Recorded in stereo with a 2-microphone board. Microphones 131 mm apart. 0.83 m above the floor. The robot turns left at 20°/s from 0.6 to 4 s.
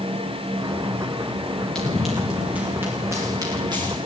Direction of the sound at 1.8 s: 5° left (ahead or behind).